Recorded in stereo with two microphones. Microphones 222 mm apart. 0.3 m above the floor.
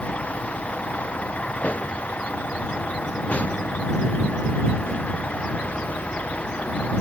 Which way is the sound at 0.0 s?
5° left (ahead or behind).